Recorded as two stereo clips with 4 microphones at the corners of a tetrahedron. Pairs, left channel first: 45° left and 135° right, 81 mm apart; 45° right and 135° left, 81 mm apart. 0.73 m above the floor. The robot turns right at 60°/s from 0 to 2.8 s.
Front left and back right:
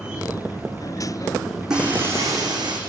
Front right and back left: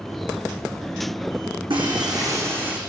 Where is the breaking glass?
145° left, 5 m; by 2.8 s 150° right, 5 m.